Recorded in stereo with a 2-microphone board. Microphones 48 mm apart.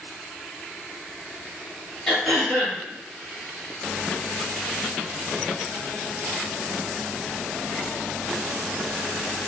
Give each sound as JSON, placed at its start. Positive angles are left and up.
{"t": 2.1, "sound": "throat clearing", "side_deg": 10, "distance_m": 1.5}